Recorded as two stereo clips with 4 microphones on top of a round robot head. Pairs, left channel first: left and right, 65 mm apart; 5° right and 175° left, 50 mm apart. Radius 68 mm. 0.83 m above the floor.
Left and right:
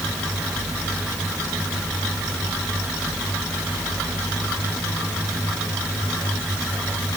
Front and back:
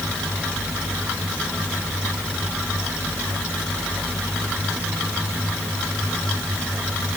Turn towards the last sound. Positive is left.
No sound to turn to.